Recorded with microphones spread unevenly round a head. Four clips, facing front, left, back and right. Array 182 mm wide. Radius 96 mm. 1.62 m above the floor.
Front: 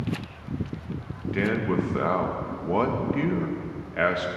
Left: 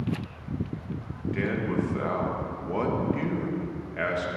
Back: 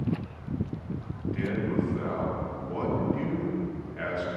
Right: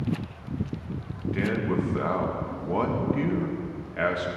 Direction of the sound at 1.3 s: Straight ahead.